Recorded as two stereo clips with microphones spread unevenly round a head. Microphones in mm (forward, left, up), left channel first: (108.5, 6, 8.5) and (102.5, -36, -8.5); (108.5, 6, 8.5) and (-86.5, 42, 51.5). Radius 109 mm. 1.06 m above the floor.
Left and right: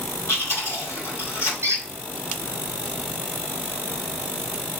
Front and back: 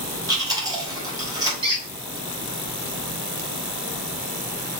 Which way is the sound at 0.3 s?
100° left.